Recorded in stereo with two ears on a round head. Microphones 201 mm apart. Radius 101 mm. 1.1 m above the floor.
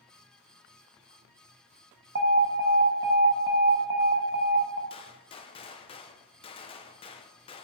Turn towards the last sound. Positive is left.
turn(degrees=25)  # may be behind; listen again after turning